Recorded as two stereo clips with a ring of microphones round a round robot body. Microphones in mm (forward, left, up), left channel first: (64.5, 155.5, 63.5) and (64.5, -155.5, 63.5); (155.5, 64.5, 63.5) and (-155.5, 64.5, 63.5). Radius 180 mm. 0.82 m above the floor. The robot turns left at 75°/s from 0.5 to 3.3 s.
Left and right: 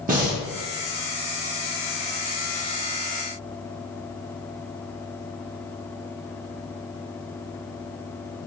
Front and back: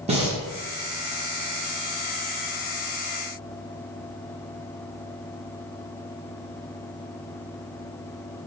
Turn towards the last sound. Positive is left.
turn(degrees=20)